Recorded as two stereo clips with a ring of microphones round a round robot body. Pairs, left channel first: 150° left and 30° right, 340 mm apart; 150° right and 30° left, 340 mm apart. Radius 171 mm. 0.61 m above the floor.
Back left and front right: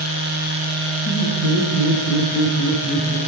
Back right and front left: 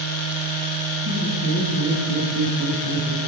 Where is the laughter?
95° left, 6 m; by 3.2 s 80° left, 5.5 m.